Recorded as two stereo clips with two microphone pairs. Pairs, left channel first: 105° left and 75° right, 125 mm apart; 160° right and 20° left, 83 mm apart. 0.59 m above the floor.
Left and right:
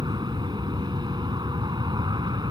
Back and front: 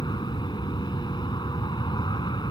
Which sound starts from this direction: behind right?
An aircraft, at 0.0 s.